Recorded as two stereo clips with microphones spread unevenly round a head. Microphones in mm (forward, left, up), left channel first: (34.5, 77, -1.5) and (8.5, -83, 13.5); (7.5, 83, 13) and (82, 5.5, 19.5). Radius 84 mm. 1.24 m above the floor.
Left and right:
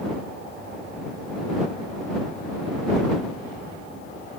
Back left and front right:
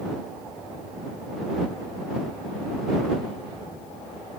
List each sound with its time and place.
Only background noise.